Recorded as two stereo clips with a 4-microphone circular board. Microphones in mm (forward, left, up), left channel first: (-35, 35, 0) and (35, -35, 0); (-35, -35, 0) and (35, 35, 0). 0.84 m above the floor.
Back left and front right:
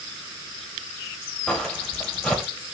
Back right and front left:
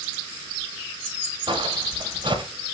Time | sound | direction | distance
1.5 | footsteps | 55° left | 1.3 m